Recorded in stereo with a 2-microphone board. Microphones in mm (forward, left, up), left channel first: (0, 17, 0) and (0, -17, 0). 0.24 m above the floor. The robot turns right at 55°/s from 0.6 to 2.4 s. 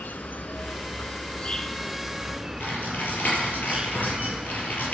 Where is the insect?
105° left, 0.9 m; by 4.9 s 155° right, 0.9 m.